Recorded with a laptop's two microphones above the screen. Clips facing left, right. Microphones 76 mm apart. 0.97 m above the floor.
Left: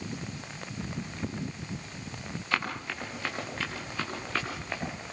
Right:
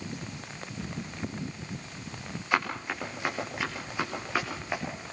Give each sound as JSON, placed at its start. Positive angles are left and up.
{"t": 2.5, "sound": "running footsteps", "side_deg": -15, "distance_m": 7.5}